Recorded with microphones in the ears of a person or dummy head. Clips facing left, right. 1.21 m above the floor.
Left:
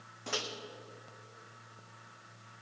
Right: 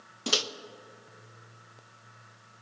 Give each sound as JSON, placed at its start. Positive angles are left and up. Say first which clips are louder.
{"t": 0.3, "sound": "a microwave", "louder": "right 6 dB", "side_deg": -55, "distance_m": 0.7}